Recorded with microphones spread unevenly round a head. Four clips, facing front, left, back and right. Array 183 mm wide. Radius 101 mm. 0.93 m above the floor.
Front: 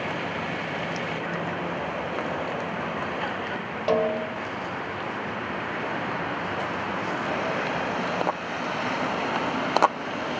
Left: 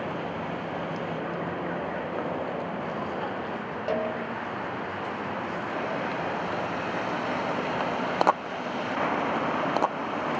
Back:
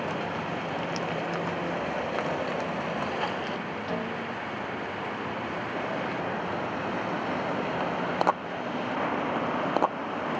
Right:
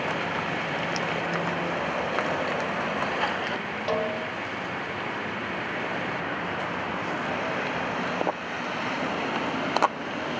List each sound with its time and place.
3.9 s a snare drum: straight ahead, 3.5 m